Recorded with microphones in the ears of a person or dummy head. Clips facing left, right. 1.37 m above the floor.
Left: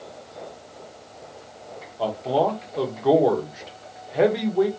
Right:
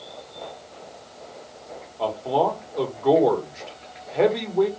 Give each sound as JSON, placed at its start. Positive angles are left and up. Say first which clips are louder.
{"t": 2.0, "sound": "a man speaking", "louder": "even", "side_deg": 5, "distance_m": 0.8}